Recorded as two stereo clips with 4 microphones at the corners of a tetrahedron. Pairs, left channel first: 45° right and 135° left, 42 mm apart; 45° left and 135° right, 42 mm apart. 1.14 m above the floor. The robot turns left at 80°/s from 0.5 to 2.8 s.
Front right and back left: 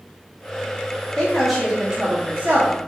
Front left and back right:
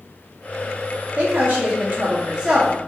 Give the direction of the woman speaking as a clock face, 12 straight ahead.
3 o'clock.